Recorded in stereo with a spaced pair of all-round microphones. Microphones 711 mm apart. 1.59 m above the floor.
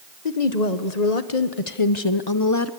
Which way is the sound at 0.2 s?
75° left (ahead or behind).